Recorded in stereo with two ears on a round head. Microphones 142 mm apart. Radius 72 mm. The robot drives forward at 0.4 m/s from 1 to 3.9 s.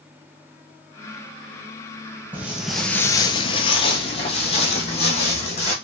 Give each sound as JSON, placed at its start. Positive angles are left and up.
{"t": 2.3, "sound": "footsteps", "side_deg": -10, "distance_m": 0.9}